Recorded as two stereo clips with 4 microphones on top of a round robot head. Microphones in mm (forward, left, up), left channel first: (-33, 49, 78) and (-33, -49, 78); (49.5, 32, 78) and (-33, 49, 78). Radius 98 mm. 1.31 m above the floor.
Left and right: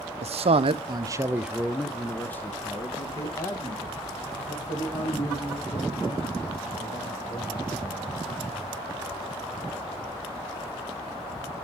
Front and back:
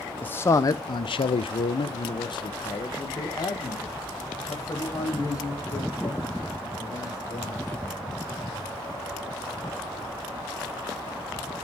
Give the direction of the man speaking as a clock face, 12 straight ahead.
3 o'clock.